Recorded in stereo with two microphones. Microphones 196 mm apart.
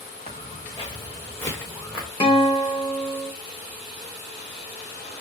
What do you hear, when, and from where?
0.3 s footsteps: 40° left (ahead or behind), 1.4 m; by 2.1 s 5° right (ahead or behind), 1.4 m
2.2 s a guitar: 25° left (ahead or behind), 1.2 m